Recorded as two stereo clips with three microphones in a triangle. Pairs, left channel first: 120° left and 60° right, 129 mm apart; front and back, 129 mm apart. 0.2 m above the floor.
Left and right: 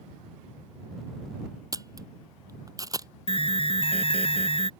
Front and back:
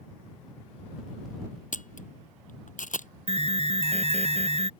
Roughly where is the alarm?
Behind left.